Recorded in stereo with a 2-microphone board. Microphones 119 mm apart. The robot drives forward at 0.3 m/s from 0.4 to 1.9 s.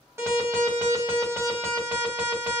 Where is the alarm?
25° right (ahead or behind), 1.4 m; by 2.6 s 20° right (ahead or behind), 1.7 m.